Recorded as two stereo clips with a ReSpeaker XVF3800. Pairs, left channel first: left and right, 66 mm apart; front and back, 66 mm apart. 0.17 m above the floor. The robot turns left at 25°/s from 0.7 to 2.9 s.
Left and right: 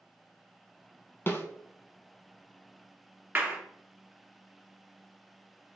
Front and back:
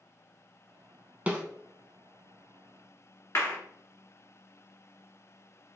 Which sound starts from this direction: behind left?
A snare drum, at 1.3 s.